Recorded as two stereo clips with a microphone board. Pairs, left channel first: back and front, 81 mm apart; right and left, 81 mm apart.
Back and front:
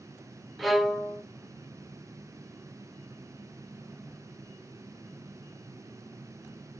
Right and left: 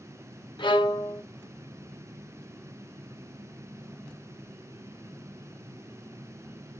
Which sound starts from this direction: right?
A violin, at 0.6 s.